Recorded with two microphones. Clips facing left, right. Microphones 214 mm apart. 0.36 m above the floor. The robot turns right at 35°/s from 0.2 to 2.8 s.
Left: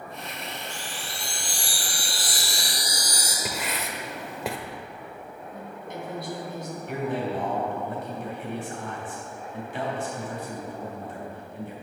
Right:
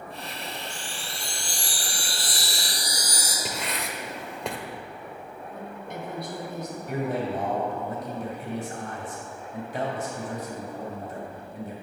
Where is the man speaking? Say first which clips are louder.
Even; 45° right (ahead or behind), 2.5 m.